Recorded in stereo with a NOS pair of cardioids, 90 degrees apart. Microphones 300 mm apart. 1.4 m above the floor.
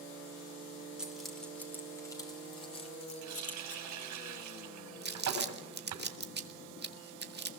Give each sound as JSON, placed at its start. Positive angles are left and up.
{"t": 1.0, "sound": "keys jangling", "azimuth_deg": -5, "distance_m": 3.5}
{"t": 3.2, "sound": "a running tap", "azimuth_deg": -70, "distance_m": 6.0}
{"t": 5.0, "sound": "crumpling", "azimuth_deg": -35, "distance_m": 1.9}